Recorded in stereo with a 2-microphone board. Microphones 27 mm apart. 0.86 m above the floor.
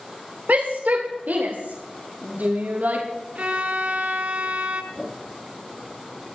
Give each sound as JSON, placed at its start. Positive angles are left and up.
{"t": 0.5, "sound": "a shout", "side_deg": -80, "distance_m": 2.0}
{"t": 3.4, "sound": "a violin", "side_deg": -55, "distance_m": 2.5}
{"t": 4.9, "sound": "a whoosh", "side_deg": 5, "distance_m": 8.0}